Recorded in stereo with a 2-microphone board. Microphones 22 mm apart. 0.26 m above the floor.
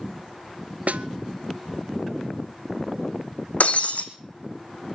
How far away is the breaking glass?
About 1.4 m.